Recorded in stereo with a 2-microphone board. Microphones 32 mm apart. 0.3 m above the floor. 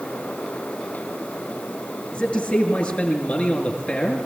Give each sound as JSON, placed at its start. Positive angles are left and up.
{"t": 2.1, "sound": "a man speaking", "side_deg": 40, "distance_m": 6.5}